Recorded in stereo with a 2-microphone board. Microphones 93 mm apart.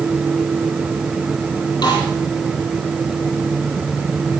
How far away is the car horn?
No car horn in this recording.